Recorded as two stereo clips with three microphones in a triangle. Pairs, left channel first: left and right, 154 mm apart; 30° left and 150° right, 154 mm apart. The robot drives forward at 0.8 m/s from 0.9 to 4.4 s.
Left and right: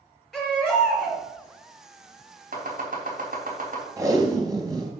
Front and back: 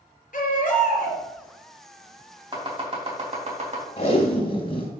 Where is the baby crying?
Straight ahead, 4.5 m.